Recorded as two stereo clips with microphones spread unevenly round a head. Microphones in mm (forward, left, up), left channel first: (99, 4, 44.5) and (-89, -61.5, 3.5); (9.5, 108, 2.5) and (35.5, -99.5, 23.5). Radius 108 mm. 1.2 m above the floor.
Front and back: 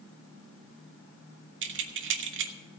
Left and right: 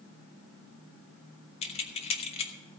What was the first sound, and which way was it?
Keys jangling, 160° left.